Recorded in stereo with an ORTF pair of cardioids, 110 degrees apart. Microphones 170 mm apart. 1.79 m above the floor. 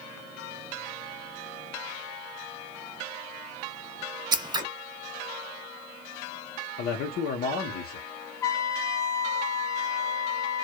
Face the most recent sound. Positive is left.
turn(degrees=20)